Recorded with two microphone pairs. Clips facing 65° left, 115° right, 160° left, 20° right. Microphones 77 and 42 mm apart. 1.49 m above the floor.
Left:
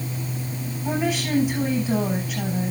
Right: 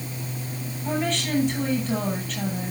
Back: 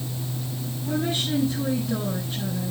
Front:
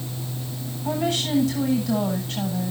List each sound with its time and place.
0.8 s a woman speaking: 20° right, 9 m